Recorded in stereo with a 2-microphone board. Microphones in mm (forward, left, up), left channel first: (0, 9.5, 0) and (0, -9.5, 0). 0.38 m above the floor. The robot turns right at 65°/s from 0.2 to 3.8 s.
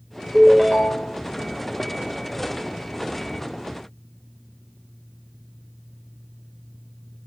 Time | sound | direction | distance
0.3 | a ringtone | 30° left | 0.9 m